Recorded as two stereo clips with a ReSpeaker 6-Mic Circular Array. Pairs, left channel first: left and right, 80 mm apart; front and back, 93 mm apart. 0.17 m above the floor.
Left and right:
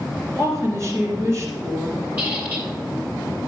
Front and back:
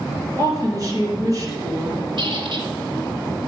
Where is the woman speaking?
135° right, 3 m.